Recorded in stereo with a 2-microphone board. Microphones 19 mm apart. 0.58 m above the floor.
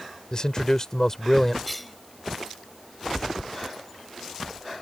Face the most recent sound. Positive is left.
turn(degrees=5)  # may be behind; listen again after turning